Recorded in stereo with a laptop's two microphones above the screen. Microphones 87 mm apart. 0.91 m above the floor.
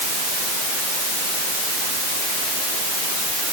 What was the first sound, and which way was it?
Only background noise.